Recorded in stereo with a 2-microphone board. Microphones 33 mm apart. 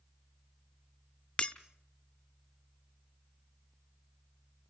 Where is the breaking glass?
35° left (ahead or behind), 0.8 m.